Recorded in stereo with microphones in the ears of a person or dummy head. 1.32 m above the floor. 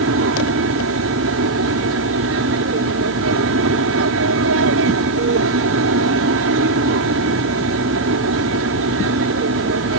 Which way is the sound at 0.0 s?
65° right (ahead or behind).